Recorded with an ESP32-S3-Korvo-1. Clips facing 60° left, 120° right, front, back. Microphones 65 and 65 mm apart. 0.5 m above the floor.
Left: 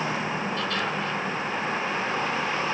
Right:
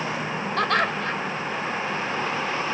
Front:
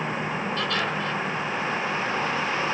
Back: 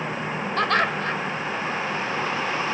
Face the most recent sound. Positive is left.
turn(degrees=-145)